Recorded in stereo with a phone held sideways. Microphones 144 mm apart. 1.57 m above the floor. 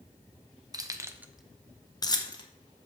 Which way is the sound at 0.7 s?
25° right (ahead or behind).